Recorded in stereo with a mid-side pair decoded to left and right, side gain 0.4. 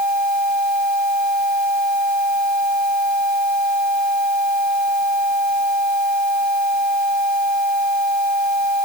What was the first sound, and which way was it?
Only background noise.